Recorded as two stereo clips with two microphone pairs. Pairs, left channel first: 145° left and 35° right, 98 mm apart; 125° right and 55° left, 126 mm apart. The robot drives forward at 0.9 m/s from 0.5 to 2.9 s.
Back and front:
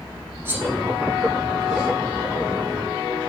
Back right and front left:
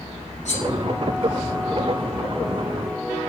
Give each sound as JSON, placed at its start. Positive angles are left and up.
{"t": 0.5, "sound": "cutlery clinking", "azimuth_deg": -100, "distance_m": 5.5}